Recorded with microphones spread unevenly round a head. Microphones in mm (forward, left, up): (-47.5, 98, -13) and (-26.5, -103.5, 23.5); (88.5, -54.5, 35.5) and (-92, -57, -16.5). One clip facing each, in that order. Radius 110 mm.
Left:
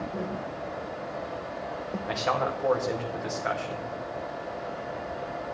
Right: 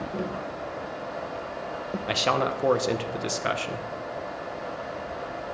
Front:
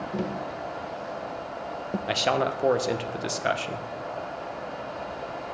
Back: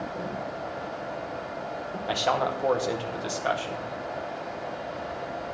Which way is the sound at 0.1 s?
5° right.